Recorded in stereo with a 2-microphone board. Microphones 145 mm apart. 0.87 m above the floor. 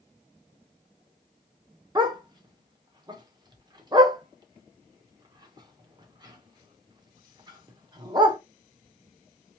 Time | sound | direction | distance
1.9 | a dog barking | 25° right (ahead or behind) | 0.8 m